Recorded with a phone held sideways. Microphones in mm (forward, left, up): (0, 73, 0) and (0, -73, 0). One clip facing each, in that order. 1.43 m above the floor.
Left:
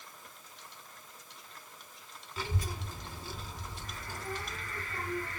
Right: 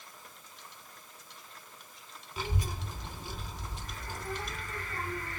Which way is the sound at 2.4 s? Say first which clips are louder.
Right 1 dB; 20° right (ahead or behind).